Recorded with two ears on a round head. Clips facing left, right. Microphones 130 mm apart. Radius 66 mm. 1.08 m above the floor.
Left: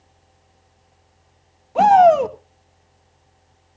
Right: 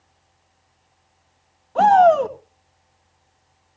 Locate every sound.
1.8 s a shout: 15° left (ahead or behind), 1.4 m